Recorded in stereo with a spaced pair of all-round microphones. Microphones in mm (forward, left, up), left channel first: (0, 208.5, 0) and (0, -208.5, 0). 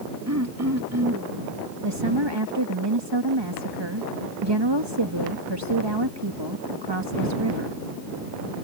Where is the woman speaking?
75° right (ahead or behind).